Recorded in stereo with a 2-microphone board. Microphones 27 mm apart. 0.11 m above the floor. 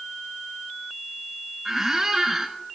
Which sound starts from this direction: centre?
A squeak, at 1.6 s.